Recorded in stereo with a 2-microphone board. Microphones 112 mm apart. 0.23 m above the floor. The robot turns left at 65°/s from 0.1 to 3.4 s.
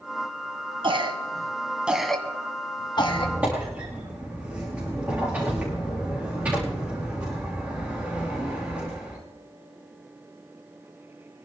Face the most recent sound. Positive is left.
turn(degrees=-15)  # may be behind; listen again after turning